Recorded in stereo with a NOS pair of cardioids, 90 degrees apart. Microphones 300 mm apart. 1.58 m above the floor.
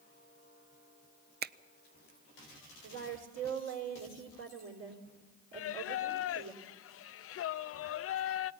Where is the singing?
50° left, 0.5 m.